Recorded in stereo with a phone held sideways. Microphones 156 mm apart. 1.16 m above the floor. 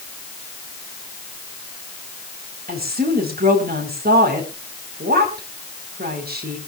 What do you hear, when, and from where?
2.7 s a woman speaking: 80° right, 4.5 m